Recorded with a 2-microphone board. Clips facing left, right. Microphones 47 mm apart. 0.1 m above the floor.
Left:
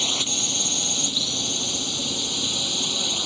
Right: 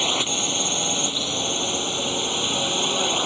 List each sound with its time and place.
0.0 s a drone: 25° right (ahead or behind); by 3.3 s 35° right (ahead or behind)